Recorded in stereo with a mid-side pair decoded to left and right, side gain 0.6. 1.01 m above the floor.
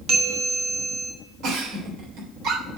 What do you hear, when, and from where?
0.1 s a bell: 50° right, 1.9 m
1.4 s a giggle: 65° right, 3 m